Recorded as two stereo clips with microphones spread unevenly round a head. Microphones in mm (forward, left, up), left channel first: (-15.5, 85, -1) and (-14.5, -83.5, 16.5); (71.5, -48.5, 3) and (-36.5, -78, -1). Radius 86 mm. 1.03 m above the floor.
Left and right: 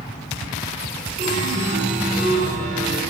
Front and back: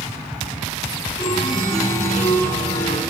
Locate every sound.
1.2 s a chime: 40° right, 3 m